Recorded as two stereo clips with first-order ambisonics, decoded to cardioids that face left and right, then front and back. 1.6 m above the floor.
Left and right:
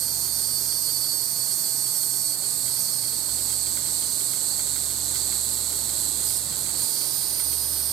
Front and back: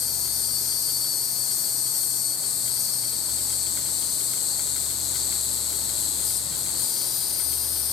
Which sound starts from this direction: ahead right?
An insect, at 0.0 s.